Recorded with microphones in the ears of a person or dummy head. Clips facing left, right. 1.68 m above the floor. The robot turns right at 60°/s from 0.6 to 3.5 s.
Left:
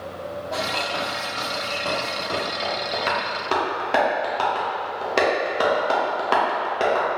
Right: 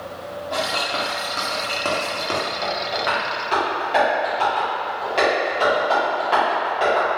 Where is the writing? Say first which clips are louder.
Right 3 dB; 5° right (ahead or behind), 1.5 m; by 2.4 s 65° right (ahead or behind), 1.5 m.